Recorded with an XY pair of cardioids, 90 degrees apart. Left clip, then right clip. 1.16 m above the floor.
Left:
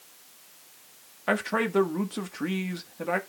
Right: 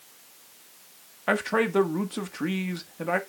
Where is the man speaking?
10° right, 1.3 m.